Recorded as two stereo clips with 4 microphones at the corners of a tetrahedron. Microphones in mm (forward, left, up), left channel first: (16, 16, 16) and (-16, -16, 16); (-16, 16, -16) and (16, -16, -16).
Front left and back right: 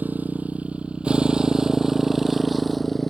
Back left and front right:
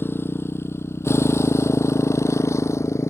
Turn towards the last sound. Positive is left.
turn(degrees=130)